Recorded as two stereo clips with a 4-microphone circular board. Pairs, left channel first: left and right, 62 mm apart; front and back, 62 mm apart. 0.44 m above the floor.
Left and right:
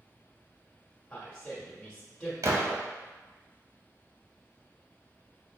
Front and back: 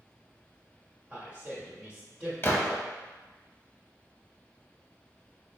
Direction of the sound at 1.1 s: 150° left.